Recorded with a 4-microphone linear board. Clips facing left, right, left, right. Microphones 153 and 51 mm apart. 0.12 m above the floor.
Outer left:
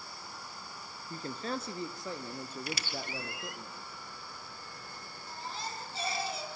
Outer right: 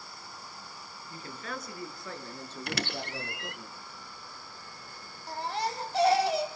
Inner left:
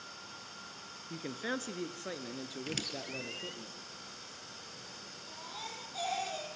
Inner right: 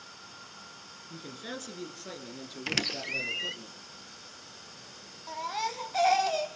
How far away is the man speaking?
About 1.9 m.